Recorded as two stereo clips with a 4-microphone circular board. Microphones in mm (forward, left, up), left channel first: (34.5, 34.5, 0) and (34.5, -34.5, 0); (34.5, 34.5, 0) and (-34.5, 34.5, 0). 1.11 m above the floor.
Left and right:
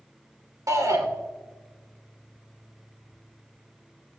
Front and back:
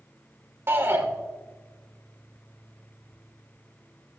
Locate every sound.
0.7 s a shout: 125° right, 3 m